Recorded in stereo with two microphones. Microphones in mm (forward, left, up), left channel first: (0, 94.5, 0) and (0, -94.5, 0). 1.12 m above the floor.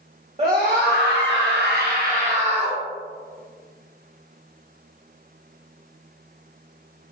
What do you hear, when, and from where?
0.4 s a scream: 35° right (ahead or behind), 0.9 m